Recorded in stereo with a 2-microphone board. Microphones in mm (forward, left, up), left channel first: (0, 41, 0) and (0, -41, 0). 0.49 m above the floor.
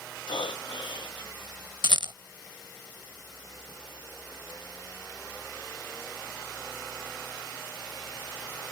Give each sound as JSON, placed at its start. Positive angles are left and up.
{"t": 0.3, "sound": "breathing", "side_deg": 75}
{"t": 1.8, "sound": "a rattle", "side_deg": -70}